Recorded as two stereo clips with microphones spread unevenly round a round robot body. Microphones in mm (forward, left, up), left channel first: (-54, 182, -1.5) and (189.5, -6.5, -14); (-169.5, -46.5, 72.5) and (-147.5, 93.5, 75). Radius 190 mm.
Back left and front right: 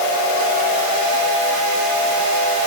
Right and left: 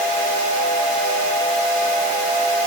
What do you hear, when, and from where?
Only background noise.